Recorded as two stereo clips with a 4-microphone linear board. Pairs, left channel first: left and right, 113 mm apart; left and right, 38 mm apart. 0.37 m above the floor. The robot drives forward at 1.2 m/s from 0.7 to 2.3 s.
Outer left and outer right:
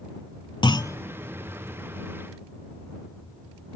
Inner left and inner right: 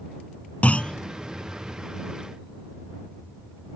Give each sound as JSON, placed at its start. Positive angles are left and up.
{"t": 0.6, "sound": "a clunk", "side_deg": 45}